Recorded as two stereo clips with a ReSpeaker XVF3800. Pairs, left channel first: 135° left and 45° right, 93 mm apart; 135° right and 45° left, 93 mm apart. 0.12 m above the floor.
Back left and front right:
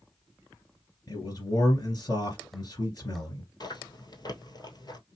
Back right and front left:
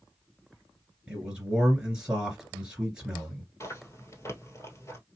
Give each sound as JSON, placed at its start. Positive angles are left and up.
{"t": 1.1, "sound": "a man speaking", "azimuth_deg": 120, "distance_m": 2.5}
{"t": 3.6, "sound": "chewing", "azimuth_deg": 170, "distance_m": 1.4}